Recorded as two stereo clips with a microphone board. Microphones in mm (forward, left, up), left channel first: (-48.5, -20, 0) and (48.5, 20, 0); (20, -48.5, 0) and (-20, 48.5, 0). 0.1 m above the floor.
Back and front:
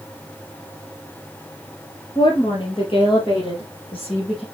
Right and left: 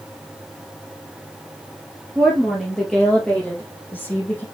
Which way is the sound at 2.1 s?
165° right.